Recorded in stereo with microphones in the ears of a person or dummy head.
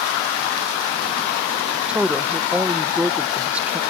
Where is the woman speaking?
5° right (ahead or behind).